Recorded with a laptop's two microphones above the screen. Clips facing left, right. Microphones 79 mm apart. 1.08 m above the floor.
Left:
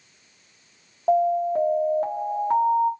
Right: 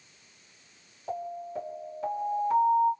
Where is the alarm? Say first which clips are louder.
Left 16 dB; 55° left (ahead or behind), 0.7 m.